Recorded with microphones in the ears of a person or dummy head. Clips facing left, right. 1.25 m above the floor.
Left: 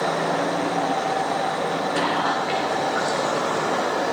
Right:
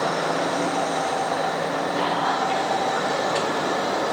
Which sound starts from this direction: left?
Whispering, at 2.0 s.